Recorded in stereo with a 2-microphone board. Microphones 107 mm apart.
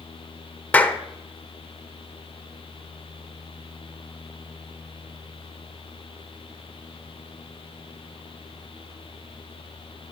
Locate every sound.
0.7 s a clap: 15° left (ahead or behind), 0.7 m